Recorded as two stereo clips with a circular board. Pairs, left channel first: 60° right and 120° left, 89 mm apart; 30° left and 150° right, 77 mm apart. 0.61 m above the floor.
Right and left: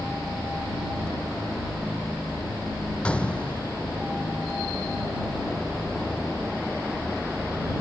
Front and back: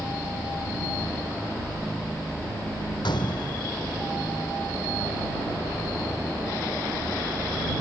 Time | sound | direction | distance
3.0 | a gunshot | 15° left | ?